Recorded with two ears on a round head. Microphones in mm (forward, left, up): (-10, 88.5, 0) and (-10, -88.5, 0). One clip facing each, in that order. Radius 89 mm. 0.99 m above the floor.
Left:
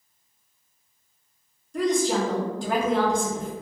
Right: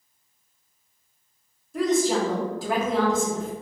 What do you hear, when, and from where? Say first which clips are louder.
1.7 s a woman speaking: right 1 dB; 5° right (ahead or behind), 0.8 m